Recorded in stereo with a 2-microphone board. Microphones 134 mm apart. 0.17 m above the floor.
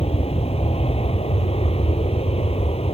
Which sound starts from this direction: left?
An aircraft, at 0.0 s.